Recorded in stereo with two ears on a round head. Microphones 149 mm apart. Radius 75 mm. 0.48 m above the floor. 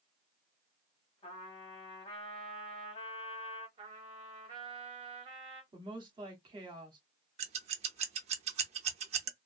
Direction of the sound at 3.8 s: 30° right (ahead or behind).